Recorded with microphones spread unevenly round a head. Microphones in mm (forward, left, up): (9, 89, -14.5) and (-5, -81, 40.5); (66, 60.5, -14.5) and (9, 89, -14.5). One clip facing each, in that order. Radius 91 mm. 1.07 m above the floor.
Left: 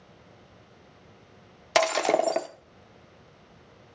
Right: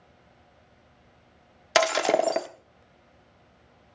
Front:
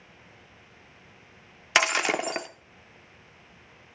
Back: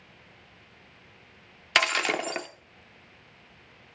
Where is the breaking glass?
90° right, 0.6 m.